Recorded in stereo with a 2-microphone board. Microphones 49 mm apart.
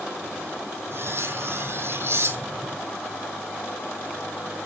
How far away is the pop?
No pop in this recording.